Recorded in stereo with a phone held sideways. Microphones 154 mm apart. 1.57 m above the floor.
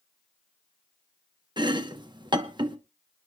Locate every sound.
1.6 s chopping: 30° right (ahead or behind), 0.9 m